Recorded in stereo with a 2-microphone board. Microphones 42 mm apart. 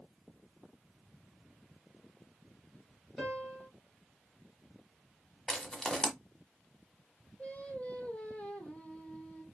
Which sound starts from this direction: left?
Singing, at 7.4 s.